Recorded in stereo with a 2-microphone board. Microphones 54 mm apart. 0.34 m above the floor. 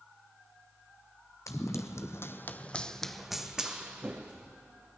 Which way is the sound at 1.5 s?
70° left (ahead or behind).